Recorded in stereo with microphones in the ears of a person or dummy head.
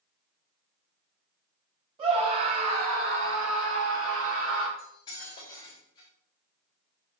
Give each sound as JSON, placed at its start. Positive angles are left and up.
{"t": 2.0, "sound": "a scream", "side_deg": -35, "distance_m": 2.5}
{"t": 4.8, "sound": "cutlery clinking", "side_deg": 30, "distance_m": 3.5}